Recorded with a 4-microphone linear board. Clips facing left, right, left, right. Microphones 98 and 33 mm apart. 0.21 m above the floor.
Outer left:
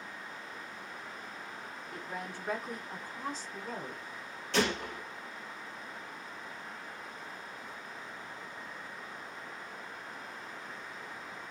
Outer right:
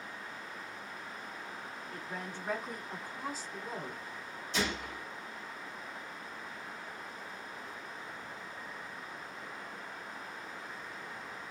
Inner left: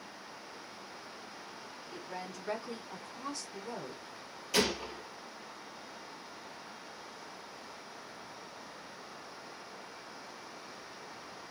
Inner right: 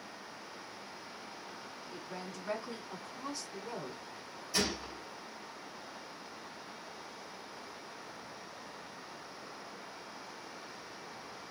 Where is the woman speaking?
20° left (ahead or behind), 1.4 m; by 4.0 s 20° right (ahead or behind), 1.6 m.